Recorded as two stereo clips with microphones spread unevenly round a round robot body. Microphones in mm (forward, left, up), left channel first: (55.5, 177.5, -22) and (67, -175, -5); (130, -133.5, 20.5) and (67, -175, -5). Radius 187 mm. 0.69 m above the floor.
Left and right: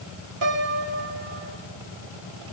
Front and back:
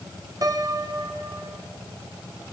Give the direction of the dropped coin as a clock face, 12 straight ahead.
No dropped coin in this recording.